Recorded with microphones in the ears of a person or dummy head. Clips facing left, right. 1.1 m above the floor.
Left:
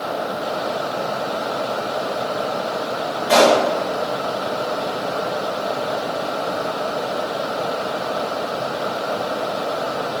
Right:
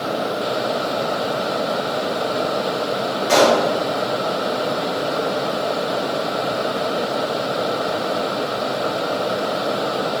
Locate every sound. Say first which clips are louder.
3.3 s a pop: left 1 dB; 85° right, 2 m